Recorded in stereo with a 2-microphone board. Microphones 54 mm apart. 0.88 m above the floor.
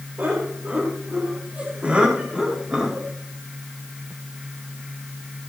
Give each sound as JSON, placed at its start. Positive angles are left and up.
{"t": 0.2, "sound": "laughter", "side_deg": -45, "distance_m": 3.5}